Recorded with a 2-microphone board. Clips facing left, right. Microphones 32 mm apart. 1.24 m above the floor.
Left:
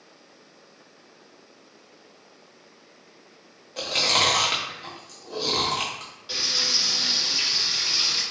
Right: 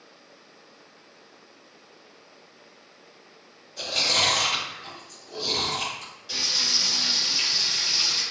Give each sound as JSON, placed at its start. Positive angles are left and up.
{"t": 3.8, "sound": "chewing", "side_deg": 65, "distance_m": 0.6}
{"t": 6.3, "sound": "frying", "side_deg": 25, "distance_m": 1.7}